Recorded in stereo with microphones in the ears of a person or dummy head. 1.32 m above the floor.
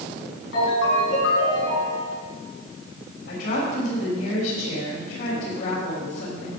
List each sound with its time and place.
0.5 s a ringtone: 75° left (ahead or behind), 5.5 m
3.3 s a woman speaking: 75° left (ahead or behind), 6 m